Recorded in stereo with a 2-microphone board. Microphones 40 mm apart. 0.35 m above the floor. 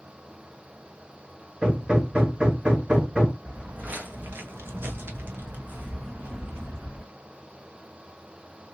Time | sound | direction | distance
1.6 | hammering | 25° right (ahead or behind) | 1.2 m
3.4 | footsteps | 30° right (ahead or behind) | 1.0 m